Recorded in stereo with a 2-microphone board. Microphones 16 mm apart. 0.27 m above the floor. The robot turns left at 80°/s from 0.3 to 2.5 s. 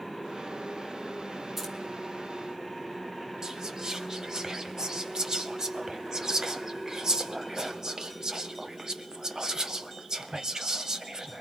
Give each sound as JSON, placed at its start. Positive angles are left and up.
{"t": 1.6, "sound": "keys jangling", "side_deg": -20, "distance_m": 2.0}
{"t": 3.4, "sound": "whispering", "side_deg": -35, "distance_m": 1.2}